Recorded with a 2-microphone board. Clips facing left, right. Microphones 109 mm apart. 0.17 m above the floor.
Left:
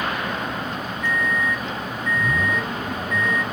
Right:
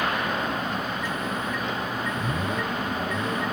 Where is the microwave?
15° right (ahead or behind), 0.9 m.